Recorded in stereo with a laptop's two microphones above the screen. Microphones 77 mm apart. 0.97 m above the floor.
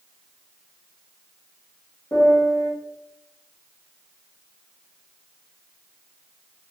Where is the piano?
35° left (ahead or behind), 1.5 m.